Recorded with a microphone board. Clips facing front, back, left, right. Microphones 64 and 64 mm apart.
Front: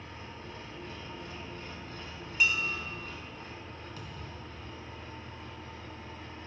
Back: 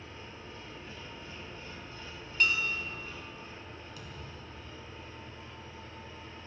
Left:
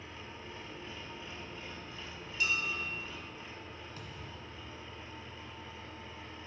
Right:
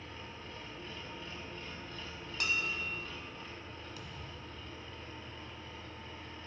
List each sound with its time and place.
0.0 s an engine running: 15° left, 1.5 m
2.4 s dishes clattering: 80° right, 1.2 m
4.0 s a thud: 45° left, 1.7 m